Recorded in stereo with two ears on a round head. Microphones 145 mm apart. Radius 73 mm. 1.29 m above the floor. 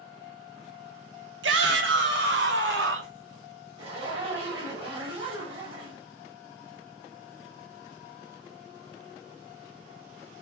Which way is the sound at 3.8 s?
35° right (ahead or behind).